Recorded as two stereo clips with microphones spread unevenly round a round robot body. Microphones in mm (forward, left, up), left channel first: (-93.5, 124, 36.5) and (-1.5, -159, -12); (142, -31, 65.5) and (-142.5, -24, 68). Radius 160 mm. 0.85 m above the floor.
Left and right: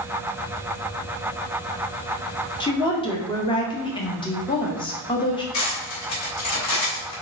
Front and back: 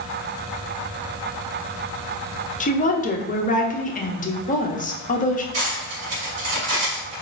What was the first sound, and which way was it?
A woman speaking, 30° left.